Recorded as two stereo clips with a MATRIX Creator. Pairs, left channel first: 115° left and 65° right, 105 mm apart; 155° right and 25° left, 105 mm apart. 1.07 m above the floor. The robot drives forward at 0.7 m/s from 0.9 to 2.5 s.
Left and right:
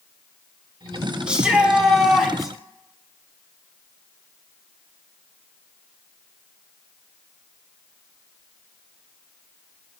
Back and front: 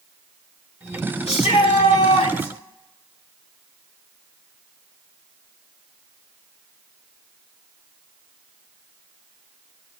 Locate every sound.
1.3 s a shout: 145° right, 3 m; by 2.5 s 155° right, 4 m